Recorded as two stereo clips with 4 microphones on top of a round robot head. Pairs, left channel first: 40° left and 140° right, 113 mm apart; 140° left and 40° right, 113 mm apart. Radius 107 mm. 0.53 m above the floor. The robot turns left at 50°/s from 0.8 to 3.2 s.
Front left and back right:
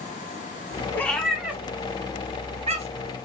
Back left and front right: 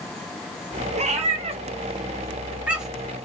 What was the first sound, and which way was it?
A cat meowing, 30° right.